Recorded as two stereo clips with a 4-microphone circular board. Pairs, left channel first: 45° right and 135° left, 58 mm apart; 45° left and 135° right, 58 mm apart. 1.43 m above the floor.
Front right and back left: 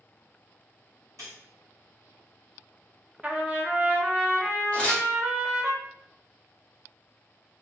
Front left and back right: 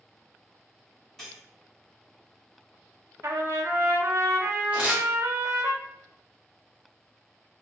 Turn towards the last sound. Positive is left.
turn(degrees=-95)